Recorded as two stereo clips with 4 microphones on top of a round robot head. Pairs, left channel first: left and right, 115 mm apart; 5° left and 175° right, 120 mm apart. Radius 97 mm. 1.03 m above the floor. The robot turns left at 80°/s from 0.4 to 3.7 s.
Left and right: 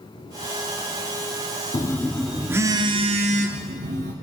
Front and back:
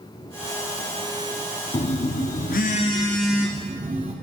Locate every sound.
1.7 s a phone buzzing: 40° left, 0.8 m; by 4.1 s 120° right, 0.8 m